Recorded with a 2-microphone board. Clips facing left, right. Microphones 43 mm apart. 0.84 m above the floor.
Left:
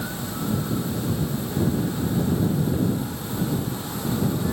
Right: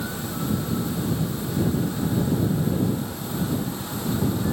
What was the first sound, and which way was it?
Only background noise.